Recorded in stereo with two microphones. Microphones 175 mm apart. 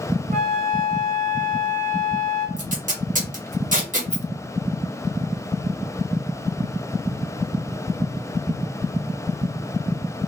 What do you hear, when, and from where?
0.3 s a flute: 40° right (ahead or behind), 0.9 m
2.6 s tape being pulled: 45° right (ahead or behind), 1.5 m
4.1 s a rattle: 40° right (ahead or behind), 0.8 m